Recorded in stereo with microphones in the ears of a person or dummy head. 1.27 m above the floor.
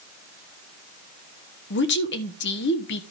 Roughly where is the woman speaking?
Left.